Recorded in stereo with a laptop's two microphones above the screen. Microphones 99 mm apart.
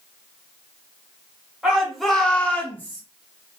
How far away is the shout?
About 1.1 m.